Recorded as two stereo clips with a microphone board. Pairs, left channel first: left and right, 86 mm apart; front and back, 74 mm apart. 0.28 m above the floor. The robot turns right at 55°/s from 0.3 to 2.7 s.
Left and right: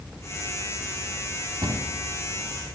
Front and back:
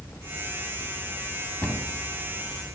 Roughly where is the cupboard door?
Right.